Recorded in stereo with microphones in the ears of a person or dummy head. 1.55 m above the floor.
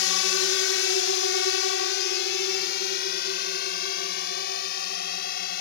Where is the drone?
80° left; by 5.6 s 60° left (ahead or behind).